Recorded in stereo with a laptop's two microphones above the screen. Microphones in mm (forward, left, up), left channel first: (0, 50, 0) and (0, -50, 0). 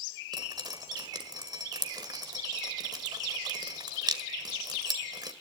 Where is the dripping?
45° right (ahead or behind), 1.8 m.